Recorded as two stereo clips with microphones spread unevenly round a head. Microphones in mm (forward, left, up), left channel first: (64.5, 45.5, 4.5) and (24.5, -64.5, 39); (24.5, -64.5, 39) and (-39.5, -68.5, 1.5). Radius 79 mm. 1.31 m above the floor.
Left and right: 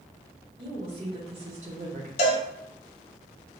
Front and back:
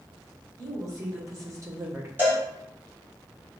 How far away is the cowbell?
About 1.3 m.